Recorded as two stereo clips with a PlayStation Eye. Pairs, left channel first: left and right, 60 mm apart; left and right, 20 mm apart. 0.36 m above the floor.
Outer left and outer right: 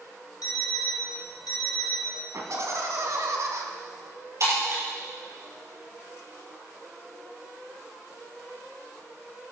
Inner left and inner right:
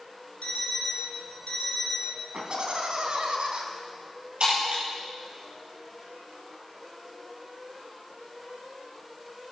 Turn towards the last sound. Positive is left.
turn(degrees=-55)  # may be behind; listen again after turning